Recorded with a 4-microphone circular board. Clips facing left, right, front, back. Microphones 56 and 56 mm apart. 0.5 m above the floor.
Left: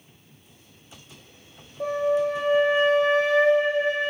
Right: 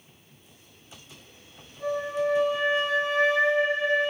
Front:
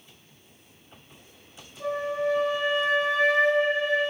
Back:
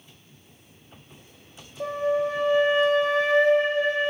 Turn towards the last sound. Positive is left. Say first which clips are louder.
# left 4 dB, back 3 dB
turn(degrees=130)